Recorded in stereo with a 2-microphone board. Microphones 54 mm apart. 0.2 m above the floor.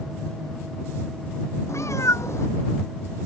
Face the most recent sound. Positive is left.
turn(degrees=60)  # may be behind; listen again after turning